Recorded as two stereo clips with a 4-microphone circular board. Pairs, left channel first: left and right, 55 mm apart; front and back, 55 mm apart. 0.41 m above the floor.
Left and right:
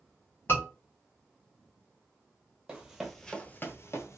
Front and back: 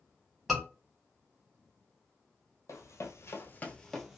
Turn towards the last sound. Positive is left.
turn(degrees=95)